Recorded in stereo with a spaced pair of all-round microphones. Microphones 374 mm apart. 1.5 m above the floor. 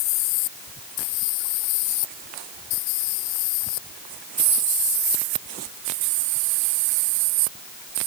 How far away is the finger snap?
I don't hear a finger snap.